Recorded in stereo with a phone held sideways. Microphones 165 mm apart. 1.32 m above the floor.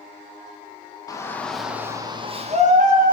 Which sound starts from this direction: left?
A shout, at 1.1 s.